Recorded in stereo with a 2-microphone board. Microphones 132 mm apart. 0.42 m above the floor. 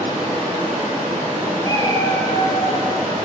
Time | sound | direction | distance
0.0 | running water | 60° right (ahead or behind) | 5 m
1.6 | a cat meowing | 30° left (ahead or behind) | 5.5 m